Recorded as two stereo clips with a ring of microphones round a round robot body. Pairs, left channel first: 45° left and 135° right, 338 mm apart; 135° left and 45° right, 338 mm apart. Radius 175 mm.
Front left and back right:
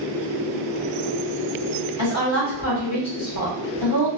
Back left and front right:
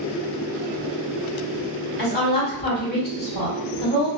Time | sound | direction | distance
2.0 | a woman speaking | 75° left | 1.3 m